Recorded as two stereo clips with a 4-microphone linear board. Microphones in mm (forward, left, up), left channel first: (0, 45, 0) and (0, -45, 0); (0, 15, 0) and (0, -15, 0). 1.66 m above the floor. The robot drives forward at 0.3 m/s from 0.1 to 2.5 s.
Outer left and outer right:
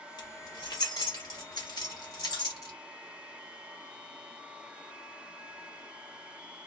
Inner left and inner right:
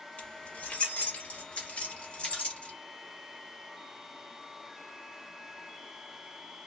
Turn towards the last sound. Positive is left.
turn(degrees=45)  # may be behind; listen again after turning